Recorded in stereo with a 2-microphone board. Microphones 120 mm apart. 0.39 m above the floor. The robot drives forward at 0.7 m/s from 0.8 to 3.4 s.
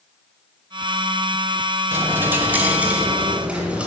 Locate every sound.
1.9 s a dropped coin: 20° right (ahead or behind), 0.8 m; by 3.9 s 10° right (ahead or behind), 1.8 m